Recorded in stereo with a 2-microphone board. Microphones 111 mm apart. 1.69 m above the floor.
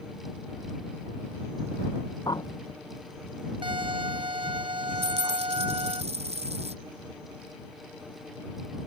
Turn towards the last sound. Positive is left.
turn(degrees=-70)  # may be behind; listen again after turning